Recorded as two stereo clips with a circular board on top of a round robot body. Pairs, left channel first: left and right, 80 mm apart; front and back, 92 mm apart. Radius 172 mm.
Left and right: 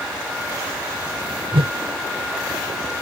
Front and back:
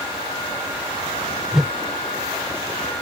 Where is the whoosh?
95° right.